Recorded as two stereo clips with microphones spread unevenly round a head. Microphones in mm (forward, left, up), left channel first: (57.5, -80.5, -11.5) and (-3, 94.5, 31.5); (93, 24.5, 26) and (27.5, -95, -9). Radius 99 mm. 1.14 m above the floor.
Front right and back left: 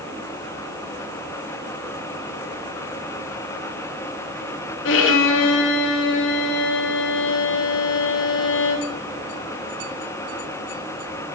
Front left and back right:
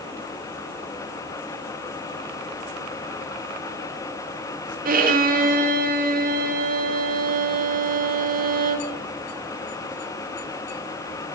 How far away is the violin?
About 1.1 m.